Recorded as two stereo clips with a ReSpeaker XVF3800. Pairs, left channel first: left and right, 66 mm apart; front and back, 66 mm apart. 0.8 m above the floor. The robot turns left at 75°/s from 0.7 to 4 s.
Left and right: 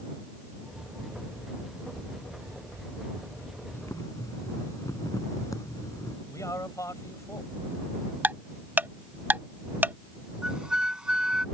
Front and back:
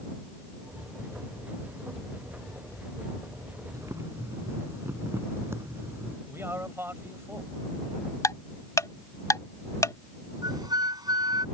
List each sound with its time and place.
3.7 s boiling: 145° left; by 6.2 s 125° left
6.3 s a man speaking: 125° left
8.2 s ticking: 30° right
10.4 s a flute: 170° right